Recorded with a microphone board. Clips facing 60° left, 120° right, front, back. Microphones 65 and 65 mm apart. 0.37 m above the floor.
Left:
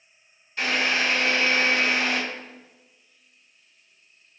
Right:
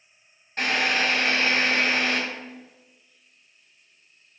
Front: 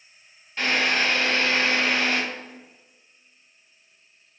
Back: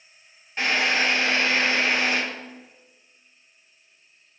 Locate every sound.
0.6 s a drill: 110° right, 1.8 m